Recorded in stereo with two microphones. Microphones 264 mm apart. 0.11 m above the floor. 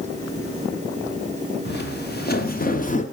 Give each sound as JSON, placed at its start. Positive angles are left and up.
{"t": 1.6, "sound": "footsteps", "side_deg": 40, "distance_m": 2.0}